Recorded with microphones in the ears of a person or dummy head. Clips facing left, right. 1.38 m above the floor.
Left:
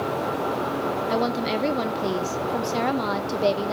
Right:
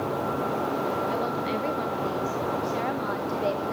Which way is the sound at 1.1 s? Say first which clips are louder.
Left 4 dB; 65° left (ahead or behind).